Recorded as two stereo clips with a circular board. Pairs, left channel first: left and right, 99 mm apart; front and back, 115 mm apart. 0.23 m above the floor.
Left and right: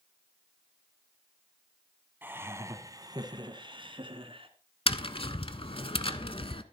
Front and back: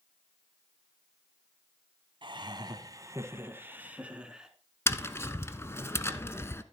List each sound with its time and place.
2.2 s laughter: 155° right, 1.6 m; by 4.5 s 95° right, 2 m
4.9 s tapping: 65° left, 0.8 m